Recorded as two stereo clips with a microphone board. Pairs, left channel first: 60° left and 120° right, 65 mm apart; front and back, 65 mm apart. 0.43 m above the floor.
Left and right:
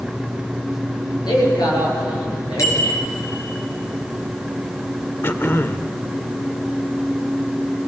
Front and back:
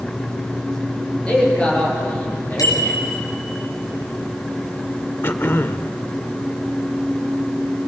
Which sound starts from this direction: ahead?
A bicycle bell, at 2.6 s.